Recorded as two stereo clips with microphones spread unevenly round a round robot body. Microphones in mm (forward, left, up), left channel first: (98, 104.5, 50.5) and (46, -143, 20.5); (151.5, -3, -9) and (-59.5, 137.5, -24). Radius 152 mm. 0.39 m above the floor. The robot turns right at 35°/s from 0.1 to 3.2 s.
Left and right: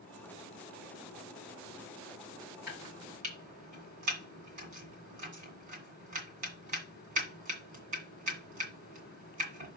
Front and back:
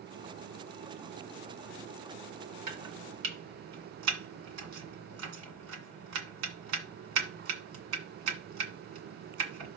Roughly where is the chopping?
Behind.